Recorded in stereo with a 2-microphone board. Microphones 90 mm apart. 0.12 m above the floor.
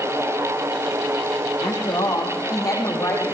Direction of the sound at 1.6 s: 45° left (ahead or behind).